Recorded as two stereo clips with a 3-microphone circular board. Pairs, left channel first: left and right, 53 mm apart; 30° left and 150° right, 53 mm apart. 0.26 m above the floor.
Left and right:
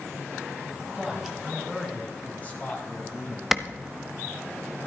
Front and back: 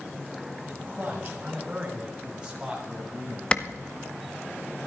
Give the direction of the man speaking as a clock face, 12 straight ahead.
5 o'clock.